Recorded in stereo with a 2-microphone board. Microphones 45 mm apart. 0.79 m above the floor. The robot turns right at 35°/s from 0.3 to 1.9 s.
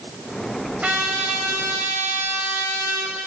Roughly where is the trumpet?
Behind right.